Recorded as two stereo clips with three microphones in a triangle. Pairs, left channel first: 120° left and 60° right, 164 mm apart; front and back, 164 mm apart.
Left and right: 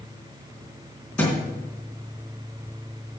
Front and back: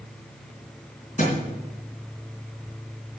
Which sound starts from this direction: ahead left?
A thud, at 1.2 s.